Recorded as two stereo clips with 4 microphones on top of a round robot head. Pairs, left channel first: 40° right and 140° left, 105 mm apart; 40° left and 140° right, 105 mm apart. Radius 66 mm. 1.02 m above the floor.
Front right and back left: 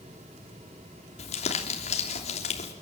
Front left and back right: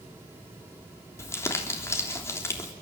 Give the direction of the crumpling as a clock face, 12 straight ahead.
1 o'clock.